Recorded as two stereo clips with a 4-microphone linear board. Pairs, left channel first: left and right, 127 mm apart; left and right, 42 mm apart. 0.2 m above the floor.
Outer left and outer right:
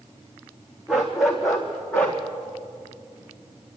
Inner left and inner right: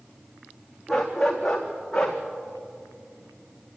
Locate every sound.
0.9 s a dog barking: 5° right (ahead or behind), 4 m; by 2.2 s 10° left (ahead or behind), 3.5 m